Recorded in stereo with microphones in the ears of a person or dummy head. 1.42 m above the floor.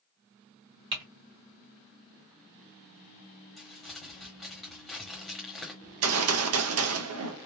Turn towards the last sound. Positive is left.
turn(degrees=-80)